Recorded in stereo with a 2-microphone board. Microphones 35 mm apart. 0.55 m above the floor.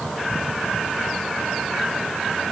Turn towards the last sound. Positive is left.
No sound to turn to.